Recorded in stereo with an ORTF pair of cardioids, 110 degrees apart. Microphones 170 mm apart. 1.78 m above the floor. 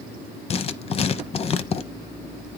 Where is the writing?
35° left, 0.8 m.